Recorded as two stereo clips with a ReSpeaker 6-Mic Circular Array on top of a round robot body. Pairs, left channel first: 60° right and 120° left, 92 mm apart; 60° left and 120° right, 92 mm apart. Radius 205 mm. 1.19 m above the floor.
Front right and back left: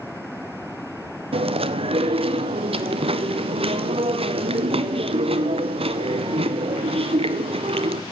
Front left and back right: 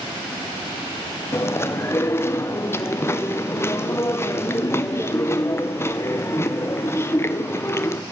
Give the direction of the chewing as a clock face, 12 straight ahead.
8 o'clock.